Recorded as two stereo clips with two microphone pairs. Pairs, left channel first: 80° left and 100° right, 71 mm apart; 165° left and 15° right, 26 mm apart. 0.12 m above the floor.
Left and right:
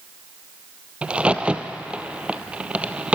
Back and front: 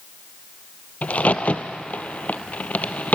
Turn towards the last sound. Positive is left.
turn(degrees=-175)